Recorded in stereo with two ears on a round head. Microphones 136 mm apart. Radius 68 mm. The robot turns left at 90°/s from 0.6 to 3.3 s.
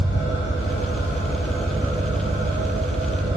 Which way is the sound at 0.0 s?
100° left.